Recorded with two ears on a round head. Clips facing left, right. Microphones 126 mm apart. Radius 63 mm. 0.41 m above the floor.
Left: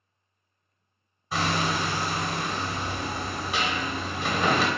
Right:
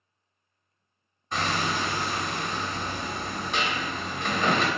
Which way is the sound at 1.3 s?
5° left (ahead or behind).